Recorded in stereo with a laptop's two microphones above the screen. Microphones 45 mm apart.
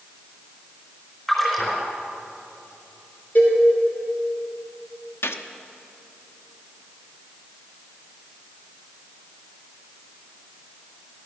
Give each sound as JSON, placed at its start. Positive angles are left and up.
{"t": 1.3, "sound": "a splash", "side_deg": 5, "distance_m": 4.0}
{"t": 3.4, "sound": "a cowbell", "side_deg": 50, "distance_m": 3.0}
{"t": 5.2, "sound": "a gunshot", "side_deg": 75, "distance_m": 0.8}